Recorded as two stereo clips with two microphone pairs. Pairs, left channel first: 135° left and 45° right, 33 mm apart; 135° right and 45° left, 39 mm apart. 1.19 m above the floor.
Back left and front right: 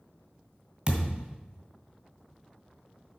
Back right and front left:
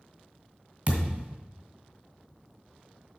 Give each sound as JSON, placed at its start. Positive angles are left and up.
{"t": 0.9, "sound": "a thud", "azimuth_deg": 5, "distance_m": 1.8}